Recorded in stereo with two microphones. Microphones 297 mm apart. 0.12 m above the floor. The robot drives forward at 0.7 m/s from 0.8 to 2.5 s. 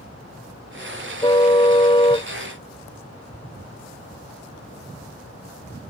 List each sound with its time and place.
1.2 s a car horn: 15° left (ahead or behind); by 2.3 s 20° left (ahead or behind)